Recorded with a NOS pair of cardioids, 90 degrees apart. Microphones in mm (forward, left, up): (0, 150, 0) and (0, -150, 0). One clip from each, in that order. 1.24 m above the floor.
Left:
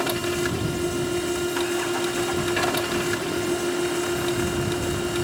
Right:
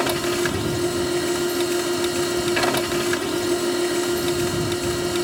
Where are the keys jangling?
I don't hear keys jangling.